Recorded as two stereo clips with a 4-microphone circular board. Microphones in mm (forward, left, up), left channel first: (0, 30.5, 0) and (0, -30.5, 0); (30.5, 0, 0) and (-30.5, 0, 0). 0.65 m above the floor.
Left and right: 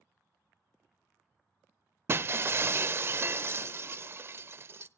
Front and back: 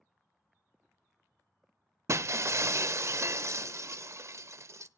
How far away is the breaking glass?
About 0.6 m.